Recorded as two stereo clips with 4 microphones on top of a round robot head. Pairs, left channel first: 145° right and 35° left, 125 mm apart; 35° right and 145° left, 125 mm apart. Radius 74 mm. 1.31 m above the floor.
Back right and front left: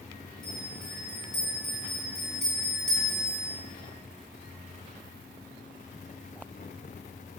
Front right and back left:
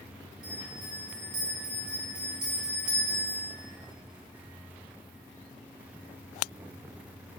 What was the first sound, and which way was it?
A bell, 130° left.